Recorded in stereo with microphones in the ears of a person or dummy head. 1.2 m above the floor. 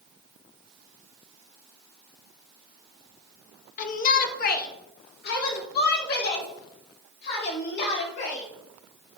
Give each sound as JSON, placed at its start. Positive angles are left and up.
{"t": 3.8, "sound": "a shout", "side_deg": 45, "distance_m": 1.4}